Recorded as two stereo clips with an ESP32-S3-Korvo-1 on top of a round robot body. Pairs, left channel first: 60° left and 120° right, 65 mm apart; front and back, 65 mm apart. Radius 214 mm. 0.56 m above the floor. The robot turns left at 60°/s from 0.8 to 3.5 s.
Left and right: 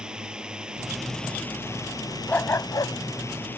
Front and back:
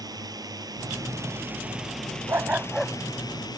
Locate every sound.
0.0 s a drone: 160° left; by 3.6 s straight ahead
2.3 s a dog barking: 125° left; by 3.6 s 55° left